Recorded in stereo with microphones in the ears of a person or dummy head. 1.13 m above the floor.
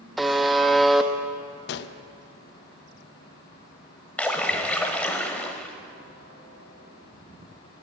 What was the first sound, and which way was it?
A buzzer, centre (ahead or behind).